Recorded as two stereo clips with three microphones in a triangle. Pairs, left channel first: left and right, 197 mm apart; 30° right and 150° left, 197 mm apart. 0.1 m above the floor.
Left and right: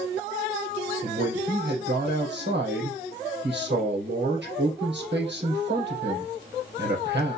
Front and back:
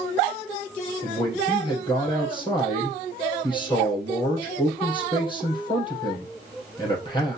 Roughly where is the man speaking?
Right.